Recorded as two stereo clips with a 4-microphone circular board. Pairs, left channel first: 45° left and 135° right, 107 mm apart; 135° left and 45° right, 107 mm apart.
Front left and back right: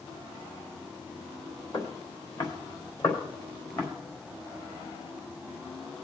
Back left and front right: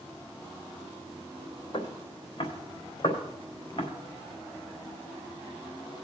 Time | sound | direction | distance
1.7 | footsteps | 90° left | 3 m